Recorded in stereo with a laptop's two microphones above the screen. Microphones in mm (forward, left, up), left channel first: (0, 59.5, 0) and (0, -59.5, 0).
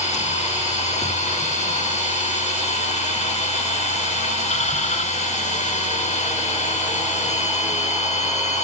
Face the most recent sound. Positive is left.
turn(degrees=60)  # may be behind; listen again after turning